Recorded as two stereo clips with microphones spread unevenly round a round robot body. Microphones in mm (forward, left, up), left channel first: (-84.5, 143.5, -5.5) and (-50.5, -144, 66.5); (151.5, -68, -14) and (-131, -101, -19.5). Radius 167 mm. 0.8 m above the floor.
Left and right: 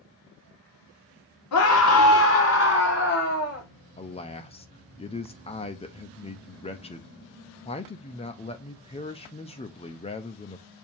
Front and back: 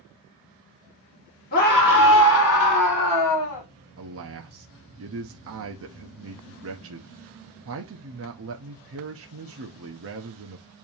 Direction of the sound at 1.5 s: 70° left.